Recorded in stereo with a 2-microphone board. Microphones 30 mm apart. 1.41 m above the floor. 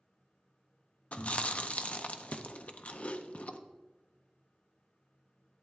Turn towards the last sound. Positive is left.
turn(degrees=50)  # may be behind; listen again after turning